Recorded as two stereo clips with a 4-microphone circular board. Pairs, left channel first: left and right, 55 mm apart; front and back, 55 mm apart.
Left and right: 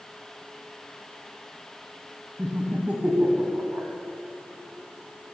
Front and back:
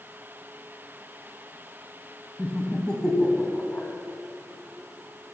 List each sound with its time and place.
2.4 s laughter: 60° right, 1.4 m